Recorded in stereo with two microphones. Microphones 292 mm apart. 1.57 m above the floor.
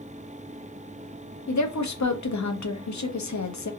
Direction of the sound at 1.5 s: 70° left (ahead or behind).